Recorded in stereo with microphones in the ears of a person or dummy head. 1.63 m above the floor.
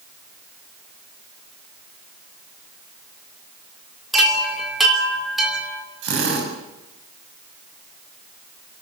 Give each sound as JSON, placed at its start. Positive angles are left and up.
{"t": 4.1, "sound": "a chime", "side_deg": 0, "distance_m": 3.0}
{"t": 6.0, "sound": "a drill", "side_deg": -70, "distance_m": 7.0}